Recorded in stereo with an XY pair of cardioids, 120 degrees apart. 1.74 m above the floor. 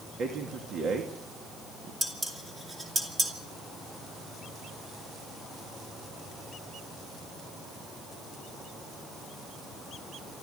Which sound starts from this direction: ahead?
Dishes clattering, at 2.0 s.